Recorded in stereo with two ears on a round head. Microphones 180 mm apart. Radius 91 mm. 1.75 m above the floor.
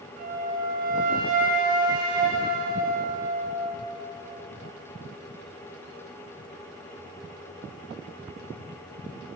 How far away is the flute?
About 9.5 m.